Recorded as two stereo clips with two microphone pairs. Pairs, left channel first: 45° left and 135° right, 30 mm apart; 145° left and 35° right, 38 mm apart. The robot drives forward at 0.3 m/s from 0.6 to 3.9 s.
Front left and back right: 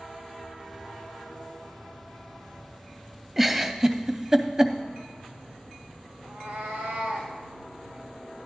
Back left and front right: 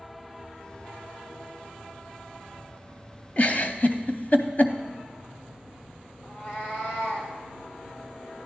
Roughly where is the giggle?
Behind left.